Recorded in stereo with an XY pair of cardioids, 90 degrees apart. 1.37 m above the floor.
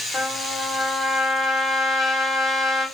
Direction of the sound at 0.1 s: 60° left.